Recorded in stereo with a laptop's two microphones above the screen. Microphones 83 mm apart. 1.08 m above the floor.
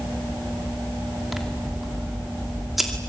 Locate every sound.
1.3 s scissors: centre (ahead or behind), 2.5 m